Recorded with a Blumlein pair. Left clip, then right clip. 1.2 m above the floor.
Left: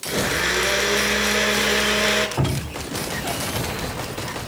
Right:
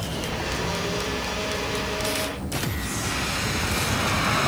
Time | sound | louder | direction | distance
0.1 | a blender | left 11 dB | 50° left | 5 m
2.4 | dripping | left 3 dB | 45° left | 1.6 m